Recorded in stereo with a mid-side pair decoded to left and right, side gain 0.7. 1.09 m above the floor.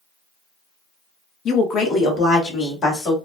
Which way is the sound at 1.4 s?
45° left.